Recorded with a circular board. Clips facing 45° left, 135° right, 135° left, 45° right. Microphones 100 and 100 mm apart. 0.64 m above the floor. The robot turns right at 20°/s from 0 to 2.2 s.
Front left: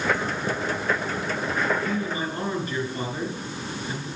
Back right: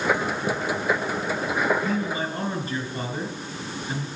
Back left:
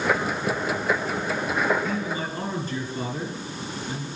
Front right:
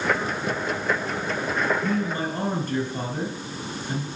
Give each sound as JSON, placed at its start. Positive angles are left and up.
{"t": 1.8, "sound": "a man speaking", "azimuth_deg": -75, "distance_m": 4.5}